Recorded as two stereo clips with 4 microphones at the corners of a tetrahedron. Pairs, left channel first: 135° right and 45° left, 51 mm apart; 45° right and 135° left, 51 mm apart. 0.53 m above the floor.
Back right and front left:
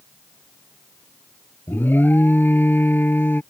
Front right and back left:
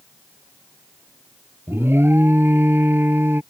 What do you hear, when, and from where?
1.7 s an alarm: 175° left